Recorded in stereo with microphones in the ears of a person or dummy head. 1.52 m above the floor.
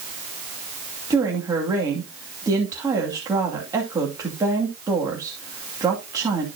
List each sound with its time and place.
1.1 s a woman speaking: 20° right (ahead or behind), 2.5 m